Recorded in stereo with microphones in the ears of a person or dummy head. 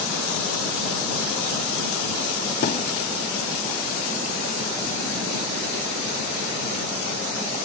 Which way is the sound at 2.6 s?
40° left (ahead or behind).